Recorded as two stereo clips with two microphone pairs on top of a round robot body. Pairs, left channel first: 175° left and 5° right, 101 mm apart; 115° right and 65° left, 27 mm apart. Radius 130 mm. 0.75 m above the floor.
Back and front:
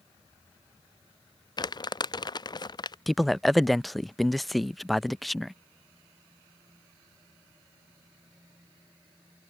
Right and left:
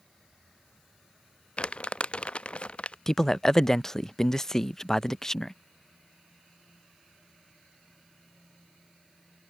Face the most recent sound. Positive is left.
turn(degrees=-110)